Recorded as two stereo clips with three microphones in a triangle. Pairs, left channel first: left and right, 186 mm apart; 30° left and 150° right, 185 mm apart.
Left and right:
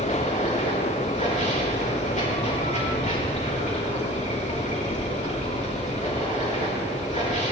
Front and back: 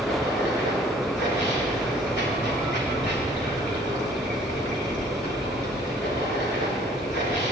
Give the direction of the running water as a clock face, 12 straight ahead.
11 o'clock.